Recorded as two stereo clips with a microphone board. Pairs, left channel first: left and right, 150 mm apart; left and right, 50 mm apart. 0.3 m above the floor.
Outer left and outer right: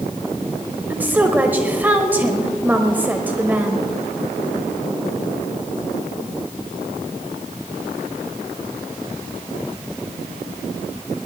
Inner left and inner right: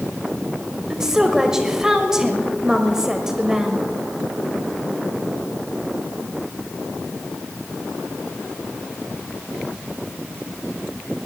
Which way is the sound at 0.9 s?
10° right (ahead or behind).